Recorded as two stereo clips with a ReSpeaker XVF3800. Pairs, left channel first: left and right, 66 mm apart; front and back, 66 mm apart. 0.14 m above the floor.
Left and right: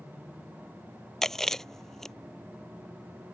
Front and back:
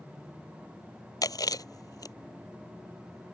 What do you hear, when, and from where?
1.2 s chewing: 5° left